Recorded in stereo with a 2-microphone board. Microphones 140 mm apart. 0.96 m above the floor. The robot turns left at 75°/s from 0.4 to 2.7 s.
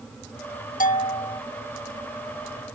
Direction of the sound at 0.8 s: 80° left.